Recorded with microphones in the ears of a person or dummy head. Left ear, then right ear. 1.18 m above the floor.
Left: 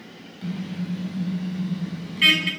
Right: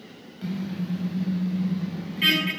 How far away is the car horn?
About 4 m.